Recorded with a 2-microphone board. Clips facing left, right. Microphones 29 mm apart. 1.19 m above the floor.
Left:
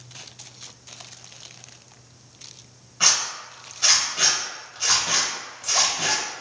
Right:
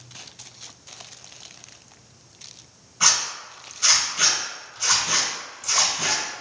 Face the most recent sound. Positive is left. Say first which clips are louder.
# even
turn(degrees=25)  # may be behind; listen again after turning